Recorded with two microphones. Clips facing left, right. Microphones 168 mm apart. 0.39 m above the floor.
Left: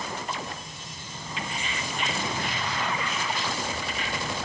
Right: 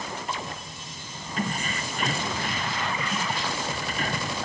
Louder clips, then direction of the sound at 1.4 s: Right 5 dB; 45° right (ahead or behind).